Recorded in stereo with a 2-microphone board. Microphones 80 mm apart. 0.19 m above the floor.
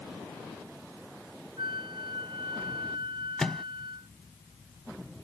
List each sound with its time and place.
1.6 s a flute: 85° right
3.4 s a microwave: 5° left (ahead or behind)